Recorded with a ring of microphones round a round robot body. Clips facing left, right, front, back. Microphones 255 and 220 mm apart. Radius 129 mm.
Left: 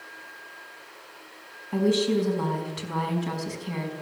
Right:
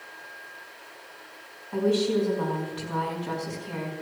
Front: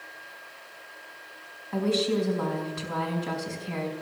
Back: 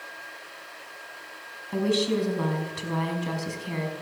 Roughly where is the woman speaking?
Behind left.